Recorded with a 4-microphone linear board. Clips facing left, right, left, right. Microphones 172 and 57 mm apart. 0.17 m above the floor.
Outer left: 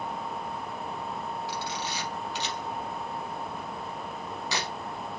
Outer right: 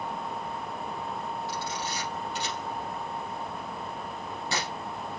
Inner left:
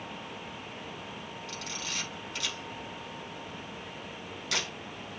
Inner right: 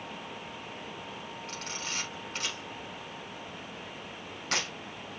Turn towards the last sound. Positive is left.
turn(degrees=-45)  # may be behind; listen again after turning